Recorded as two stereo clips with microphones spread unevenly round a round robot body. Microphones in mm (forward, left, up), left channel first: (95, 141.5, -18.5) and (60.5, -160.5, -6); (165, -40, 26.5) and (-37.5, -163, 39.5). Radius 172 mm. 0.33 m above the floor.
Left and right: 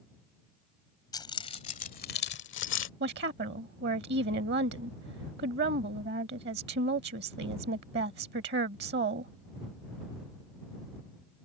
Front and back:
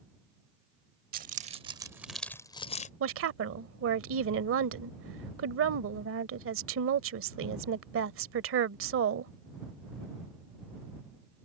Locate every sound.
1.1 s keys jangling: 160° left; by 2.9 s 70° left
3.0 s a woman speaking: 155° right